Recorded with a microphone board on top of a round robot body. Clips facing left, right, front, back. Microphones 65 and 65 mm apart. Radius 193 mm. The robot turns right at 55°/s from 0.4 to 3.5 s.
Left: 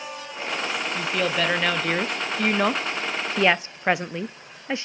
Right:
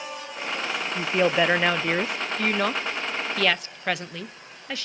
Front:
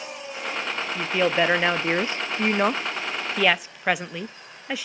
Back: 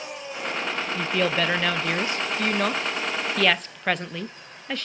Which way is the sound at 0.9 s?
70° right.